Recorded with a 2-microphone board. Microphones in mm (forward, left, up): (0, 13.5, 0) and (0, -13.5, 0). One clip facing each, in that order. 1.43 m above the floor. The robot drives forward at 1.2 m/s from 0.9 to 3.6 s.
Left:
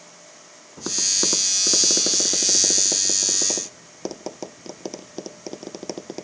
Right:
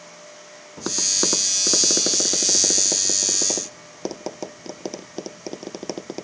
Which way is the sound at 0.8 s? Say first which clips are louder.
Even; 20° right (ahead or behind).